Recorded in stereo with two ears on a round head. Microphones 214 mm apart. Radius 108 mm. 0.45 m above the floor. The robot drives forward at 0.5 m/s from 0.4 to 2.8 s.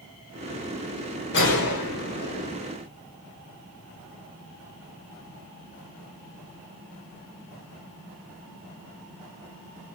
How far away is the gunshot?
About 1.1 m.